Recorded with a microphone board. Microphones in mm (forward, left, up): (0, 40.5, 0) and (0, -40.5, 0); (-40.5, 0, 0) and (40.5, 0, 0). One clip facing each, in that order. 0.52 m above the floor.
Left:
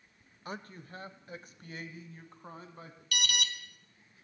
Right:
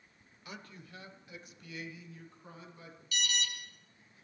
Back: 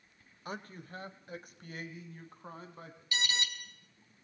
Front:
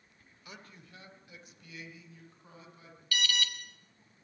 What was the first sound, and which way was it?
A man speaking, 140° left.